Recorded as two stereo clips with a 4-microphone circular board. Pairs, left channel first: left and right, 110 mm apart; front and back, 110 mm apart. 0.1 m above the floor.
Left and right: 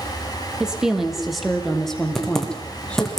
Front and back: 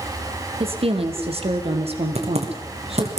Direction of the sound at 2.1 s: 175° left.